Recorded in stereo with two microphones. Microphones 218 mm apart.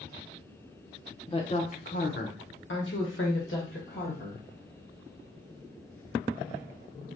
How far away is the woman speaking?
About 1.1 m.